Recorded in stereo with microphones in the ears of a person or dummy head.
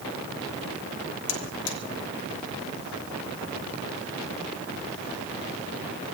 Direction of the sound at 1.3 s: 70° left (ahead or behind).